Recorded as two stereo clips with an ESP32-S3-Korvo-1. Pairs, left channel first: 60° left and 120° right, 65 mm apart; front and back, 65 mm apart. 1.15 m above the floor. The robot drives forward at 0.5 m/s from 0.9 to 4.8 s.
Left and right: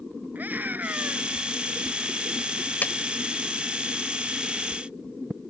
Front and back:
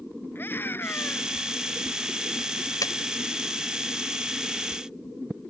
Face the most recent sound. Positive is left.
turn(degrees=0)